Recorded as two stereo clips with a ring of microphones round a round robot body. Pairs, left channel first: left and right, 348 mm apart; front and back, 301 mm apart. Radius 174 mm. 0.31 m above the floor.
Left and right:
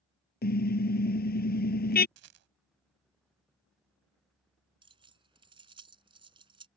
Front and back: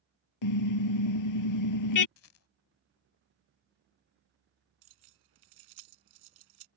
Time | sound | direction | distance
0.4 | a car horn | 25° left | ?
2.2 | a rattle | 45° right | ?
4.8 | keys jangling | 165° right | ?